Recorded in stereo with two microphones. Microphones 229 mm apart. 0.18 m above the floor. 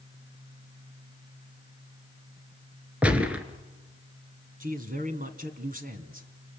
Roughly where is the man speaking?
Right.